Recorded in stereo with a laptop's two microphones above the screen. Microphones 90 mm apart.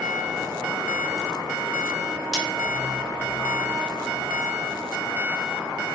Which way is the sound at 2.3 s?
5° left (ahead or behind).